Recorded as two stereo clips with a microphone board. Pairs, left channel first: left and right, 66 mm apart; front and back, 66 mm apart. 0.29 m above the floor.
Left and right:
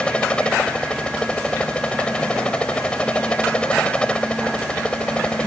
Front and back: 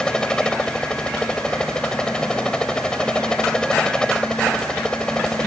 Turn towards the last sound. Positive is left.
turn(degrees=50)